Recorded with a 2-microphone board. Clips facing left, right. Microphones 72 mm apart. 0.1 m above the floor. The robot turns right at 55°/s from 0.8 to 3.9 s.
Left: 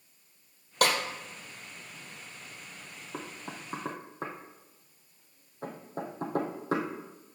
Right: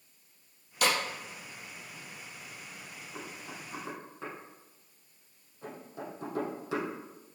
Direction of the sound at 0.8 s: 55° left (ahead or behind).